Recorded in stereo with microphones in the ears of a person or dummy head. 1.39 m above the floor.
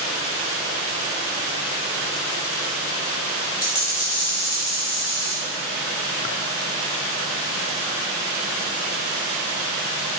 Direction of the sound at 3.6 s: 20° left (ahead or behind).